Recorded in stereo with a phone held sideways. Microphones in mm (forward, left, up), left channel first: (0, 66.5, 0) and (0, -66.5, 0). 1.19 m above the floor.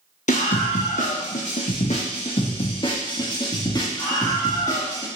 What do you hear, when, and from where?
0.3 s a scream: 75° left (ahead or behind), 1.1 m; by 5.1 s 20° left (ahead or behind), 2.5 m